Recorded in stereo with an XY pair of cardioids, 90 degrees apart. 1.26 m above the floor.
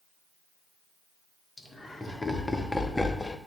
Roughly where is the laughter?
Ahead.